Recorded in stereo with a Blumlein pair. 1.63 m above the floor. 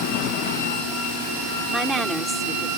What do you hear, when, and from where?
1.7 s a woman speaking: 10° right